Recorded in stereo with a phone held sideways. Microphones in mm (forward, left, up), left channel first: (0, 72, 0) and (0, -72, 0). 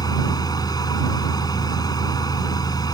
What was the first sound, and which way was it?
A fan, 25° left (ahead or behind).